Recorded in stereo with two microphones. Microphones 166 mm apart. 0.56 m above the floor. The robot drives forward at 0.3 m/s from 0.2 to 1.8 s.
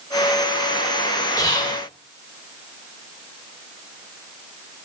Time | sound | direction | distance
1.4 | whispering | 20° left (ahead or behind) | 0.6 m